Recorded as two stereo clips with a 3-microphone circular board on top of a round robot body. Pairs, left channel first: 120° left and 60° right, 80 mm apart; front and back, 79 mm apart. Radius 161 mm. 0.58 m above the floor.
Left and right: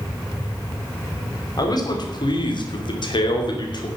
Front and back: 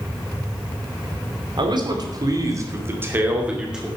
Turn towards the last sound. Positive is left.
turn(degrees=95)